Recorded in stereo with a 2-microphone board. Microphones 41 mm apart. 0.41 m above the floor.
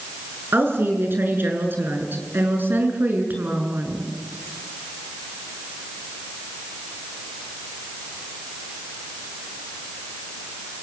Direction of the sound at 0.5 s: 65° right (ahead or behind).